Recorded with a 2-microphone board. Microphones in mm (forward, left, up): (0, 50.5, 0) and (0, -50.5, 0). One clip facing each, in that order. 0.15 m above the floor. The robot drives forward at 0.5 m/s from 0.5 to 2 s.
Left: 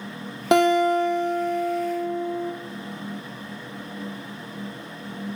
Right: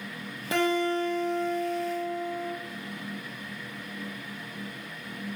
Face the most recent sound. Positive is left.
turn(degrees=55)  # may be behind; listen again after turning